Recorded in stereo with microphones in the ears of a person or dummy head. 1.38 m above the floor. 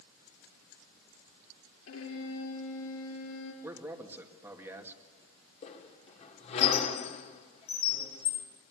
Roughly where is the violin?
Left.